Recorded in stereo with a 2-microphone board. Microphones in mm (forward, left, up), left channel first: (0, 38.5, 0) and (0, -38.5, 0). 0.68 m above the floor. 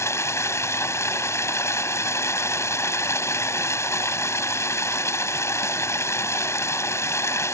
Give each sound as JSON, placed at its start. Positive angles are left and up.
{"t": 0.0, "sound": "running water", "side_deg": 40}